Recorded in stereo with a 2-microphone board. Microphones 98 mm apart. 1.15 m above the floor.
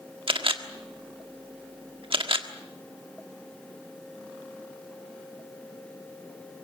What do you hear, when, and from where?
0.3 s a camera shutter: 65° right (ahead or behind), 1.5 m